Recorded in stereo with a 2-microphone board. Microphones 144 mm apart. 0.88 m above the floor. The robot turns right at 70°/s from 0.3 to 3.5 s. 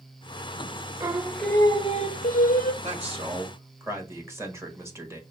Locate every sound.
1.0 s singing: 20° right, 0.5 m; by 2.7 s 100° left, 0.5 m
2.8 s a man speaking: 65° right, 1.5 m; by 5.2 s 20° right, 1.5 m